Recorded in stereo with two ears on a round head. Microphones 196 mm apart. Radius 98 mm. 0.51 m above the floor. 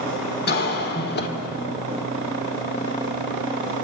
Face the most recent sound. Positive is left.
turn(degrees=50)  # may be behind; listen again after turning